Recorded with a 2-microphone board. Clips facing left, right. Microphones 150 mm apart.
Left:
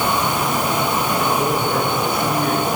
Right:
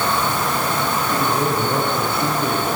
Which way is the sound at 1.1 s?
30° right (ahead or behind).